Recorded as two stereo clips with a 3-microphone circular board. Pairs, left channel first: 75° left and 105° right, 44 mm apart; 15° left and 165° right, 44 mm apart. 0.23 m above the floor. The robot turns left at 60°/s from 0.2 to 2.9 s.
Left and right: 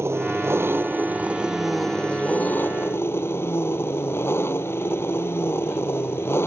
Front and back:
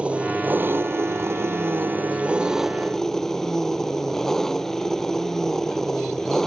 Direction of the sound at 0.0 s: 105° right.